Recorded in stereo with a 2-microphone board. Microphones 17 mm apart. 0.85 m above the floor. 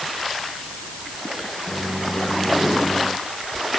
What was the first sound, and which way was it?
A microwave, 35° left (ahead or behind).